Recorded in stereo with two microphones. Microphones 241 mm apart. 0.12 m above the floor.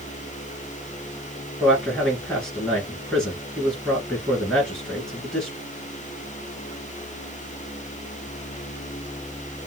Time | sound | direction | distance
1.6 | a man speaking | 5° left (ahead or behind) | 2.0 m